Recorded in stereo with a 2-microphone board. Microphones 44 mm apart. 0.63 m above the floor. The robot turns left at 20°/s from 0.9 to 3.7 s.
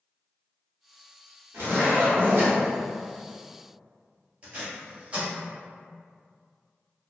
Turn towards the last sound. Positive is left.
turn(degrees=-30)  # may be behind; listen again after turning